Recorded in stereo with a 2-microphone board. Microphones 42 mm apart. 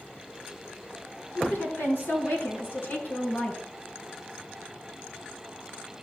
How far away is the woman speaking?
About 3 m.